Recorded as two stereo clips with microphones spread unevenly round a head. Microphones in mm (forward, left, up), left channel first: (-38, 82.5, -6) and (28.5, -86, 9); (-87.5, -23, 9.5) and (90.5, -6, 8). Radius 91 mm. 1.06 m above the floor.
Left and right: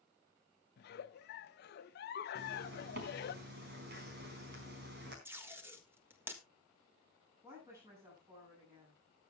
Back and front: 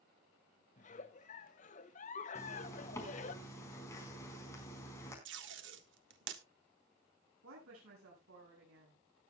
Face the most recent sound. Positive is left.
turn(degrees=5)